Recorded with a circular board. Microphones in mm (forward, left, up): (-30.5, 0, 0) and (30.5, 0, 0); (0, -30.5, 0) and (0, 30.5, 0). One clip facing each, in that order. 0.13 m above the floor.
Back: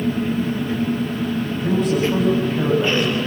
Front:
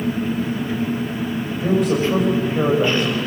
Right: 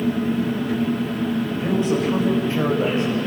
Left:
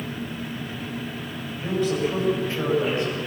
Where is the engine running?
85° right, 4 m.